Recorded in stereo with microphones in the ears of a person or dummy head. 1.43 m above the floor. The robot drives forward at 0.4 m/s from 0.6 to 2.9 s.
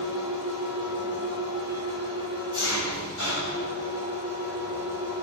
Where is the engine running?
80° left, 4.5 m; by 5.2 s 75° left (ahead or behind), 5 m.